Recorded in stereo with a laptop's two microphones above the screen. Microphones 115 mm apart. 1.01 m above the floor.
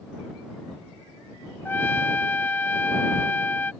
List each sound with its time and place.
1.6 s a trumpet: 15° left (ahead or behind)